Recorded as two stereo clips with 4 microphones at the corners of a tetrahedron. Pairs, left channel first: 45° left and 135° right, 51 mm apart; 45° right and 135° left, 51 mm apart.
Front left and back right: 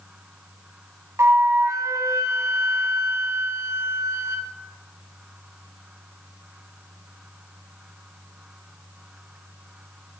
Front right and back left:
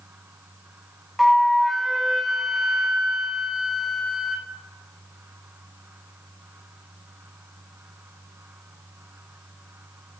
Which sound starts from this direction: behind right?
A flute, at 1.2 s.